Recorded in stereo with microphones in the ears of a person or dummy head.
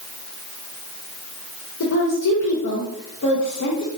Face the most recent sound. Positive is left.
turn(degrees=65)  # may be behind; listen again after turning